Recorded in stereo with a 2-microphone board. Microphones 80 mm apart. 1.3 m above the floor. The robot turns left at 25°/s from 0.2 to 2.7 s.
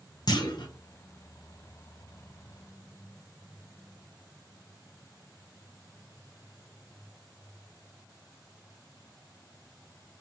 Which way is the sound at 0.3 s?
65° left (ahead or behind).